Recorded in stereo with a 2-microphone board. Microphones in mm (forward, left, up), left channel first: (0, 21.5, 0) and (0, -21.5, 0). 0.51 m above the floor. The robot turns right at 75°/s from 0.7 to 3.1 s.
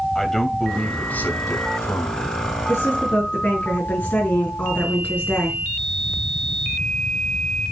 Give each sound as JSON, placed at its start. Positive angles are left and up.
{"t": 0.1, "sound": "a man speaking", "azimuth_deg": 10, "distance_m": 2.5}
{"t": 2.7, "sound": "a woman speaking", "azimuth_deg": 100, "distance_m": 5.5}